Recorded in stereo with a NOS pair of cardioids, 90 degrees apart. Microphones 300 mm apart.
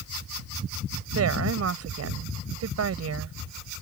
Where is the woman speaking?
55° right.